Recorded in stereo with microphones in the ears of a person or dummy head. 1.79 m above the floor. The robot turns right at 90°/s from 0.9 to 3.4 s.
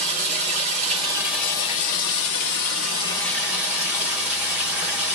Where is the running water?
40° right, 2 m; by 5.2 s 175° right, 2 m.